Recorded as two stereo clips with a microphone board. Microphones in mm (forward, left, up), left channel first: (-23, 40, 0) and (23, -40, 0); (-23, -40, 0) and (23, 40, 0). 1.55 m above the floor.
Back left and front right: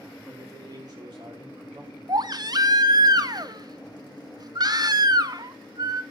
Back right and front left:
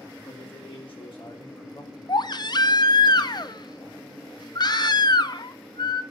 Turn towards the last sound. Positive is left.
turn(degrees=-95)